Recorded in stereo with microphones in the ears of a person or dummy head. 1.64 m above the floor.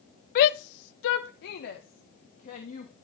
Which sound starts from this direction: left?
A shout, at 0.3 s.